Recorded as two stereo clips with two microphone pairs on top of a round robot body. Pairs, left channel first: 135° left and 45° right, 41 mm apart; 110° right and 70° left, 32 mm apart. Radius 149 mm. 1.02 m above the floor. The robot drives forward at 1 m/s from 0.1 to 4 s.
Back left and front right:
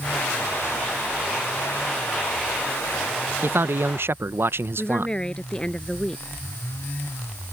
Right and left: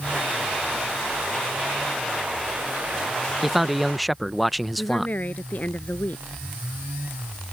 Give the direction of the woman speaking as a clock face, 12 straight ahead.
5 o'clock.